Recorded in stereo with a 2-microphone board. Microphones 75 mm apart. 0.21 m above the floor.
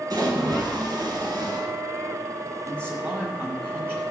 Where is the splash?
60° right (ahead or behind), 2 m.